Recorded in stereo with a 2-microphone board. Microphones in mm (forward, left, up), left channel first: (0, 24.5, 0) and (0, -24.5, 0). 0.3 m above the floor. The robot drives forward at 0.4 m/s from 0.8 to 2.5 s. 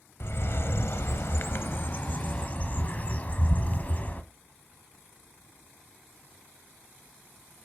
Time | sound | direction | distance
0.2 | a bird | 55° left (ahead or behind) | 0.6 m